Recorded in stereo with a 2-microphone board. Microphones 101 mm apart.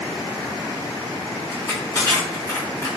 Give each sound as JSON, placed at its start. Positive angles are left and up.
{"t": 1.5, "sound": "crushing", "side_deg": 35, "distance_m": 1.1}